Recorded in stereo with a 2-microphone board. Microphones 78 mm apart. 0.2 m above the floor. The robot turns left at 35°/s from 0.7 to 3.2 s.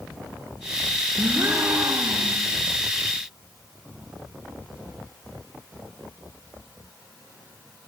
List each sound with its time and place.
1.2 s a gasp: 15° right, 4.5 m; by 2.4 s 60° right, 4.5 m